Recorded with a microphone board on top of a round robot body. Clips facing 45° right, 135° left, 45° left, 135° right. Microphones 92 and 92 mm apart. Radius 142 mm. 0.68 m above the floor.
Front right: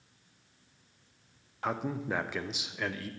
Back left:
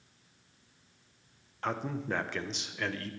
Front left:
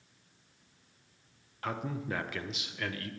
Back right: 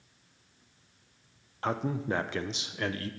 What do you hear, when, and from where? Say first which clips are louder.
1.6 s a man speaking: front right 1 dB, back right 5 dB; 120° right, 0.6 m